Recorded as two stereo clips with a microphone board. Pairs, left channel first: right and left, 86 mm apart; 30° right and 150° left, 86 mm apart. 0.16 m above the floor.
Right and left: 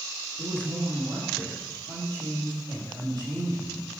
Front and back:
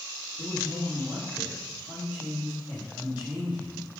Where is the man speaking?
80° left, 4.5 m.